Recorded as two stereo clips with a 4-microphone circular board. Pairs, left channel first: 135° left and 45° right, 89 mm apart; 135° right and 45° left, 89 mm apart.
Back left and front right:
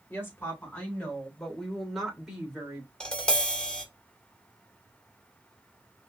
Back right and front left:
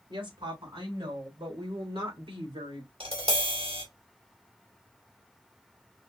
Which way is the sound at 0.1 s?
70° left.